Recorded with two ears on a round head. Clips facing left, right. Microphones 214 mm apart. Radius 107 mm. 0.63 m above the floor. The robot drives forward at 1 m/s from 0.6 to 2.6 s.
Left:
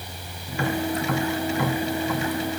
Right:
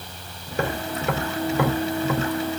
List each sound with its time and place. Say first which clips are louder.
0.5 s tapping: left 2 dB; 35° right (ahead or behind), 2 m; by 2.3 s 60° right (ahead or behind), 1.4 m